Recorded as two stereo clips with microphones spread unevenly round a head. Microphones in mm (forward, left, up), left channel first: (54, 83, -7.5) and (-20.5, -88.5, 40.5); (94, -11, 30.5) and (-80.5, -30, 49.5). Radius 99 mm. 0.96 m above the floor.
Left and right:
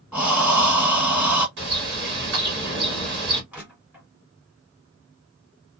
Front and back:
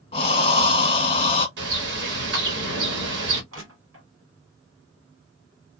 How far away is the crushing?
About 1.5 m.